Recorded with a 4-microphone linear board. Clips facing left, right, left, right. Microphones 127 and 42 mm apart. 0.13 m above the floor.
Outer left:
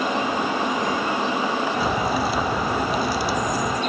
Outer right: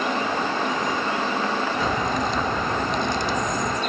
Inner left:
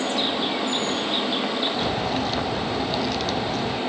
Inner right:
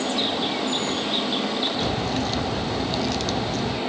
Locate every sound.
1.8 s a crack: 10° left (ahead or behind)